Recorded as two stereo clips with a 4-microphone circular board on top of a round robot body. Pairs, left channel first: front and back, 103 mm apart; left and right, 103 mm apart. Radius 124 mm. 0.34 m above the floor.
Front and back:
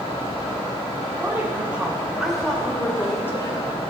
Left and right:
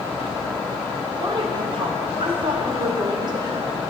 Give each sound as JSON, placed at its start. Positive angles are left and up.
{"t": 1.1, "sound": "a woman speaking", "azimuth_deg": -120, "distance_m": 2.5}